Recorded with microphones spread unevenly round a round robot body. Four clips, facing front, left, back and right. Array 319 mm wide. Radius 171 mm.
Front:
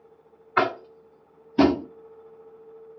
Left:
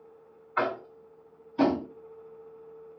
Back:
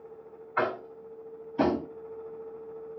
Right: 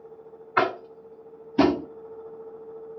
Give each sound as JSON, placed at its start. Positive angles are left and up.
{"t": 0.6, "sound": "tapping", "azimuth_deg": -40, "distance_m": 1.0}